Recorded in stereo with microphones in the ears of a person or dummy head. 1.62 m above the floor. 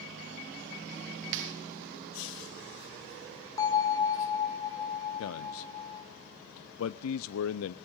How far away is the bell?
About 3 m.